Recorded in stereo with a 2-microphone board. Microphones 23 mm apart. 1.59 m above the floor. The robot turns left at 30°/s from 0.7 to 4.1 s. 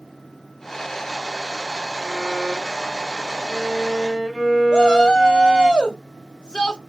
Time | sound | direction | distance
2.0 | a violin | 25° right (ahead or behind) | 1.4 m
4.7 | a shout | 35° left (ahead or behind) | 0.6 m